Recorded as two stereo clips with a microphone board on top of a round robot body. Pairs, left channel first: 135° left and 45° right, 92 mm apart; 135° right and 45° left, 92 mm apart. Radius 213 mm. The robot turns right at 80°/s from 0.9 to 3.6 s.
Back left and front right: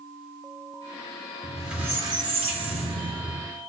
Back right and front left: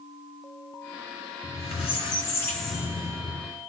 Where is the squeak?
150° right, 0.7 m; by 3.5 s 15° left, 0.7 m.